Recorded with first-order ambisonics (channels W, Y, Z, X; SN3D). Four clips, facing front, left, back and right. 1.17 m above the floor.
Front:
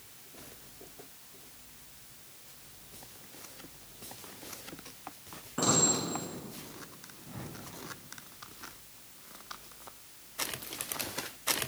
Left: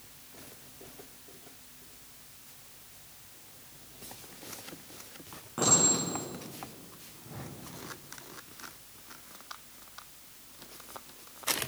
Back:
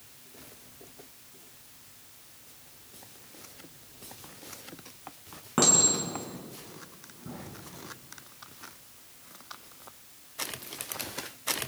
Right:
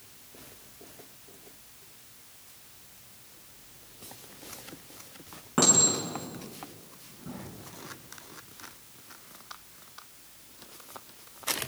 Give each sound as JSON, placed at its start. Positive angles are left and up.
{"t": 5.6, "sound": "a clink", "azimuth_deg": -150, "distance_m": 7.0}